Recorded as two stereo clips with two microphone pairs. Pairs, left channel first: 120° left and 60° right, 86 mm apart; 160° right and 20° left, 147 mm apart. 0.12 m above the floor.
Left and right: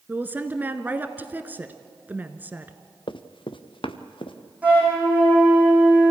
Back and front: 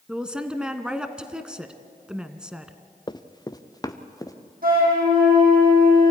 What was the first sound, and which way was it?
A woman speaking, 55° right.